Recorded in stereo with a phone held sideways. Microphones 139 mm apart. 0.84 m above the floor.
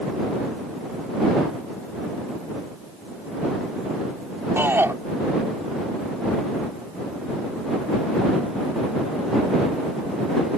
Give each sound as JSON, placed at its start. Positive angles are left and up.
{"t": 4.6, "sound": "a shout", "side_deg": -15}